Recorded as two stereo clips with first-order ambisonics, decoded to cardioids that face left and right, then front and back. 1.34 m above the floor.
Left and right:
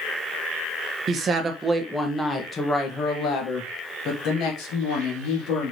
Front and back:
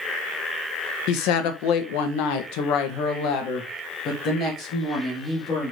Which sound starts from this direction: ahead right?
A woman speaking, at 1.1 s.